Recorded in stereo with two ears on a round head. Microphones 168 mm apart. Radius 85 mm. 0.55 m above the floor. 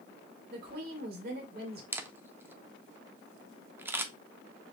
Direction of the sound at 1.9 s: 10° right (ahead or behind).